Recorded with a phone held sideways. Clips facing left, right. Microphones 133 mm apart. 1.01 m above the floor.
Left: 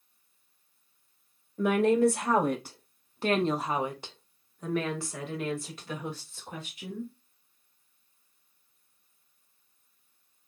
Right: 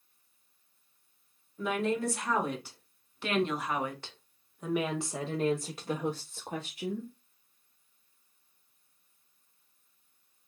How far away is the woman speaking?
About 1.7 m.